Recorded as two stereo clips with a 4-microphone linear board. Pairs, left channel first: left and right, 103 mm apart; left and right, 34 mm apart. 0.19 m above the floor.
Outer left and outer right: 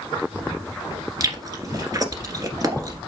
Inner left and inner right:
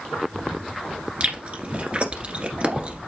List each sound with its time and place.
1.2 s chewing: 40° right (ahead or behind), 1.6 m